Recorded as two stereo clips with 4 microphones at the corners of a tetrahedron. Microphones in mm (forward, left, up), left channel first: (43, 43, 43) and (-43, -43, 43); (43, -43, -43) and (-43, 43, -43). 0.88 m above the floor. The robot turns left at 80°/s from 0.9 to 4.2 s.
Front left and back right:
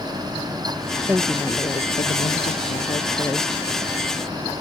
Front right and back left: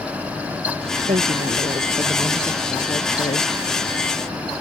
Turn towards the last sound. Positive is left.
turn(degrees=-95)